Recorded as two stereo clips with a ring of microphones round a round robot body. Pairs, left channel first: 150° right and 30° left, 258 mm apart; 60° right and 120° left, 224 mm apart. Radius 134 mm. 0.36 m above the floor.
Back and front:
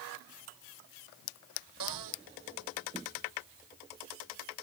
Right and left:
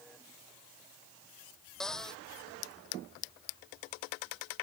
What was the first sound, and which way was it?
A cupboard door, 25° left.